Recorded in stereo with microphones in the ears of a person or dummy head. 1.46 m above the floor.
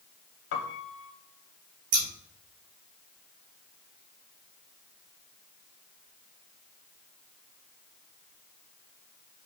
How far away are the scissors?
About 2.5 m.